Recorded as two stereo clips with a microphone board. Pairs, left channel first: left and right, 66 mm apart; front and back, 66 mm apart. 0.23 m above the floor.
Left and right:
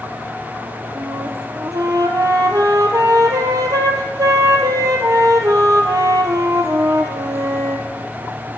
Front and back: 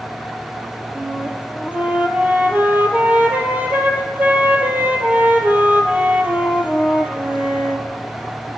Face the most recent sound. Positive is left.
turn(degrees=-115)